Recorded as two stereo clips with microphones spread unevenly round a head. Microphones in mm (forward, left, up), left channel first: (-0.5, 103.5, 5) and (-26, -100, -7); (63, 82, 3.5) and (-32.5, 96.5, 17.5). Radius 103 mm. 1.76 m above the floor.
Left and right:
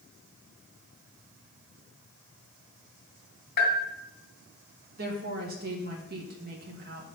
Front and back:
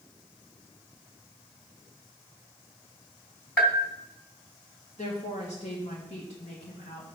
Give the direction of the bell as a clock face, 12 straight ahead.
10 o'clock.